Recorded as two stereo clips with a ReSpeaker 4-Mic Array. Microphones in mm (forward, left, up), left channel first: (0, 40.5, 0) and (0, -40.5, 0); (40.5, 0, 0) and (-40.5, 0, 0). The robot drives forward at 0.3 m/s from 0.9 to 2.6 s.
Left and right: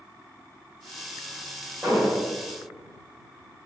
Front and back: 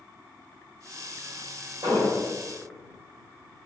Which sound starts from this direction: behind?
An explosion, at 1.8 s.